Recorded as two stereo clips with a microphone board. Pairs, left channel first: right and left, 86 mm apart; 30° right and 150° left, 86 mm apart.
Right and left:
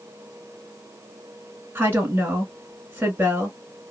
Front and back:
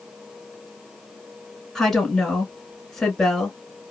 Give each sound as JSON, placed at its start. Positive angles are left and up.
{"t": 1.8, "sound": "a woman speaking", "azimuth_deg": 55, "distance_m": 1.6}